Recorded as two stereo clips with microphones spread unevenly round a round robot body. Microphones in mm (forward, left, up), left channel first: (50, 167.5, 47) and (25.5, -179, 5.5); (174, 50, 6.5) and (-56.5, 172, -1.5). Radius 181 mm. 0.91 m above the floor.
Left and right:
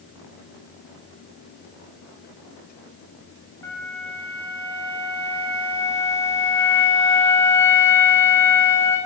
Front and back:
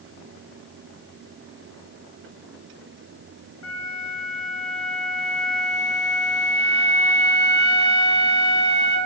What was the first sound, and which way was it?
A flute, straight ahead.